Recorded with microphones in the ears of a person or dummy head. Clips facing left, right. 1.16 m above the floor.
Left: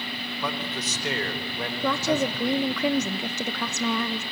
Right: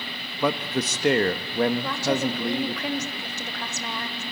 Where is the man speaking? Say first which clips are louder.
Right 8 dB; 45° right (ahead or behind), 1.4 m.